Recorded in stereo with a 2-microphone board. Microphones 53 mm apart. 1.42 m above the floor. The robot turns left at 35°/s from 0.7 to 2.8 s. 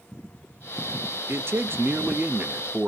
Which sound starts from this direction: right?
A man speaking, at 1.3 s.